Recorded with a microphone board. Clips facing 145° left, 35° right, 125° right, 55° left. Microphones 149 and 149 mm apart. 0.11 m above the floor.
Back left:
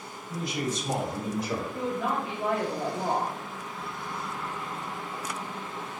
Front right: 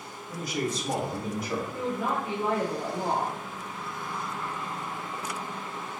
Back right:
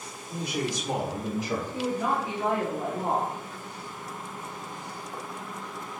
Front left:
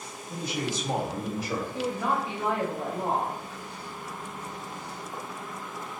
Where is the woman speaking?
55° right, 1.6 m.